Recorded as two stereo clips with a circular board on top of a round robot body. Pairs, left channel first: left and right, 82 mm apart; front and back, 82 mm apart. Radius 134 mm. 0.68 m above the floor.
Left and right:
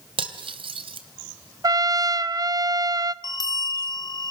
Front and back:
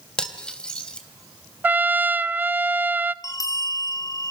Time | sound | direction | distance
0.2 | cutlery clinking | 80° right | 2.5 m
1.6 | a trumpet | 115° right | 0.9 m
3.2 | a bell | 50° left | 2 m